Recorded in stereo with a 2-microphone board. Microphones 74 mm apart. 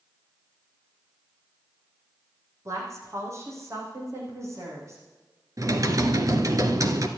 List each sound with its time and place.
2.6 s a woman speaking: 45° right (ahead or behind), 7 m
5.6 s typing on a keyboard: 50° right (ahead or behind), 1.6 m